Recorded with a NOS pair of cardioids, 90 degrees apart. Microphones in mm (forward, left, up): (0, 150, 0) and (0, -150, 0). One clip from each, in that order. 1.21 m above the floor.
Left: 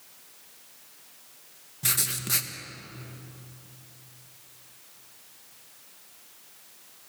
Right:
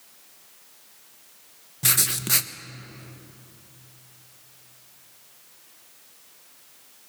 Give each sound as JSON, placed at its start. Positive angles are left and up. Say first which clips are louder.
{"t": 1.8, "sound": "writing", "louder": "right 5 dB", "azimuth_deg": -30, "distance_m": 1.1}